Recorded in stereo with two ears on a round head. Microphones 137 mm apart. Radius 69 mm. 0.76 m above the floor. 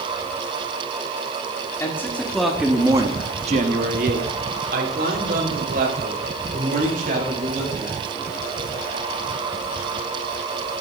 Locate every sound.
1.8 s a man speaking: 15° left (ahead or behind), 2.5 m; by 8.0 s 60° right (ahead or behind), 7 m